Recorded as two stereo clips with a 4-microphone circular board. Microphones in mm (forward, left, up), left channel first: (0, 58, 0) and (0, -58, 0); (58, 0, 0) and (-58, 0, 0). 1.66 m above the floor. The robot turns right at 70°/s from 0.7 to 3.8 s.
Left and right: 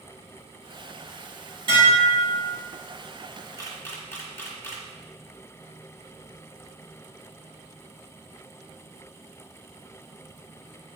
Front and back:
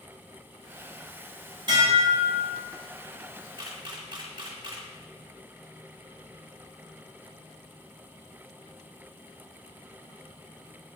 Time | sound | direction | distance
1.7 | dishes clattering | 135° right | 3 m
3.6 | a camera shutter | 135° left | 1.4 m